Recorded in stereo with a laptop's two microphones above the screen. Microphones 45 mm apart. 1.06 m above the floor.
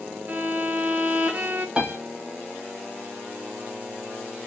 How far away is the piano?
About 0.9 m.